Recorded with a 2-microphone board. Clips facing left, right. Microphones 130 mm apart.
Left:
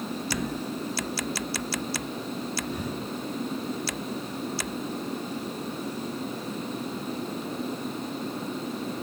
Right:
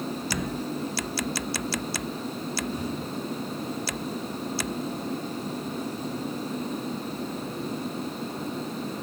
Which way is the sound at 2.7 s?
70° left (ahead or behind).